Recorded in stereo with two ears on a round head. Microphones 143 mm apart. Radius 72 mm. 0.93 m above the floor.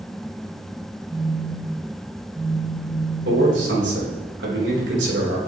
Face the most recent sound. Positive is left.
turn(degrees=-80)